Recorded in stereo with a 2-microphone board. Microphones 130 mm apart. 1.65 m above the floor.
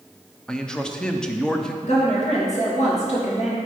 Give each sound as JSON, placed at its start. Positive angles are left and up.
{"t": 0.5, "sound": "a man speaking", "side_deg": 5, "distance_m": 0.7}
{"t": 1.8, "sound": "a woman speaking", "side_deg": 60, "distance_m": 2.5}